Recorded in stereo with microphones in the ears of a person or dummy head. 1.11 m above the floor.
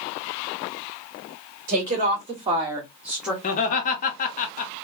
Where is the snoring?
No snoring in this recording.